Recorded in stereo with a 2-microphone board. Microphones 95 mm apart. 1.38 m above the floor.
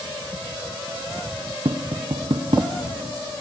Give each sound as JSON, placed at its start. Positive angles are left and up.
{"t": 1.6, "sound": "tapping", "side_deg": -65, "distance_m": 0.7}